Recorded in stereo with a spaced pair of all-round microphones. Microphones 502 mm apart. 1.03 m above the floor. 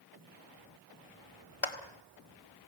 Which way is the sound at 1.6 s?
80° left.